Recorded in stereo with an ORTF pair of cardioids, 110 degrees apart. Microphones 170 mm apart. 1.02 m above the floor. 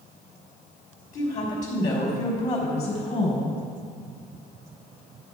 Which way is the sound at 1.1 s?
45° left.